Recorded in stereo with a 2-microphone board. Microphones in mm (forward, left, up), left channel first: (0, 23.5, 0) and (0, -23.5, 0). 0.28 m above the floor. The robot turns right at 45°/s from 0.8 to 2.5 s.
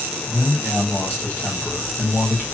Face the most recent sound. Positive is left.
turn(degrees=110)